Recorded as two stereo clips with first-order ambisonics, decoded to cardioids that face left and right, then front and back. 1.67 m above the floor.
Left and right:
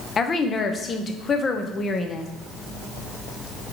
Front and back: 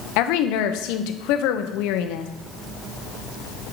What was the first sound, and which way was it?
A woman speaking, 20° left.